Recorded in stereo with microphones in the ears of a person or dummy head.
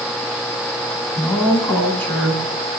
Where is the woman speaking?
Centre (ahead or behind), 9 m; by 2.4 s 5° left (ahead or behind), 9.5 m.